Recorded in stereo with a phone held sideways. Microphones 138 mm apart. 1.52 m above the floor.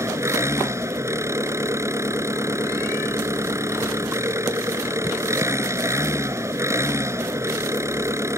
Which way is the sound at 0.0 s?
20° right (ahead or behind).